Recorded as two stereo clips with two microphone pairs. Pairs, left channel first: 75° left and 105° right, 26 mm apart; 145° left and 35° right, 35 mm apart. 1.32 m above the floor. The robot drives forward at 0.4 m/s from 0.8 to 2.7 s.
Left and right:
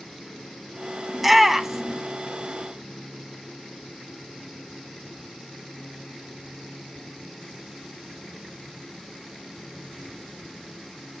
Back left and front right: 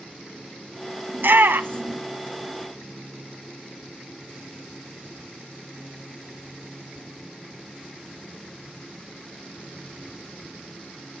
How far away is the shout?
About 0.9 m.